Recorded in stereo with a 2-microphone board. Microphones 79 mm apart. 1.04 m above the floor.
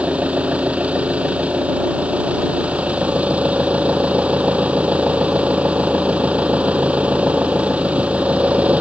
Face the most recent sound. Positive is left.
turn(degrees=-15)  # may be behind; listen again after turning